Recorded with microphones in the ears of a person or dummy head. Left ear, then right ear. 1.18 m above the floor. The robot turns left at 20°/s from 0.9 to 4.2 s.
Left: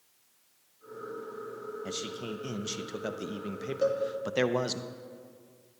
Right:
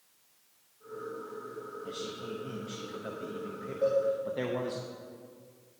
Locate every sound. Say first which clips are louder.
1.9 s a man speaking: left 2 dB; 125° left, 0.6 m; by 4.8 s 80° left, 0.6 m
3.8 s a cowbell: right 1 dB; 80° left, 1.6 m